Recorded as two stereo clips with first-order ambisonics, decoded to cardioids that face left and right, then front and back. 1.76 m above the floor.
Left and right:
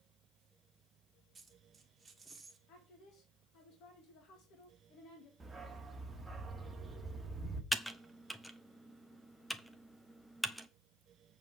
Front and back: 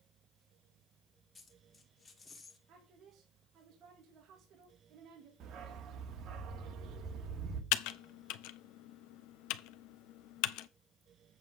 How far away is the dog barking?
About 1.5 m.